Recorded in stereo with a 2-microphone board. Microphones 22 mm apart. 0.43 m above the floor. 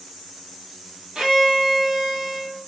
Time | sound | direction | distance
1.1 | a violin | 45° right (ahead or behind) | 2.0 m